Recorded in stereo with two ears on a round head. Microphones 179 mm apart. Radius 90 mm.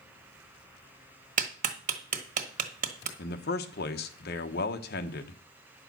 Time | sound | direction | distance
1.4 | a clap | 45° right (ahead or behind) | 1.4 m
3.2 | a man speaking | 50° left (ahead or behind) | 1.1 m